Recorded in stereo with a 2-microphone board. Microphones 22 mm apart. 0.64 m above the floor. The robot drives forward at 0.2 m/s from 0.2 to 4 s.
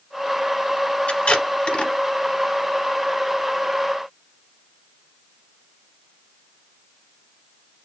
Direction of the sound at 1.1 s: 55° left (ahead or behind).